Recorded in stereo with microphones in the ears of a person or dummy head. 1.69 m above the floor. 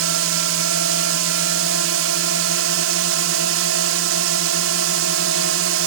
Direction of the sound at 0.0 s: 70° right (ahead or behind).